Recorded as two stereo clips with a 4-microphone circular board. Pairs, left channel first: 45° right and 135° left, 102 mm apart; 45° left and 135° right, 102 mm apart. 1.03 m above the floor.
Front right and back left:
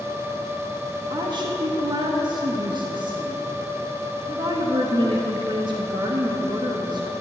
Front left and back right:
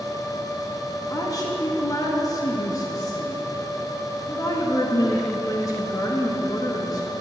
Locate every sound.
1.1 s a woman speaking: 100° left, 0.9 m